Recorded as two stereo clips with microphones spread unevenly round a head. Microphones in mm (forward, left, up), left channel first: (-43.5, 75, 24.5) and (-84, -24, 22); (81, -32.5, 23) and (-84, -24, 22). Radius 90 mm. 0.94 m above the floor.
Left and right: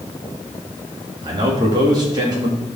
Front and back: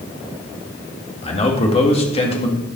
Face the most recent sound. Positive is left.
turn(degrees=-55)